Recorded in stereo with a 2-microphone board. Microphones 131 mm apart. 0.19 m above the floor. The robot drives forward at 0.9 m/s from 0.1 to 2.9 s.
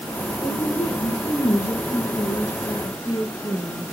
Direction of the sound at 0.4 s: 45° left (ahead or behind).